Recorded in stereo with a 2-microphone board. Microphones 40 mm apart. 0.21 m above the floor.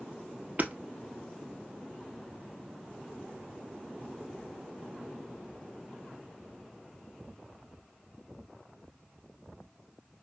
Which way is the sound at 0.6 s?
45° right (ahead or behind).